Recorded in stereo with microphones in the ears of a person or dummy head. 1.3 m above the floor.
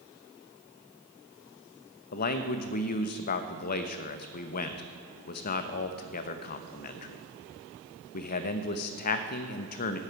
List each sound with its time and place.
2.1 s a man speaking: 50° left (ahead or behind), 1.0 m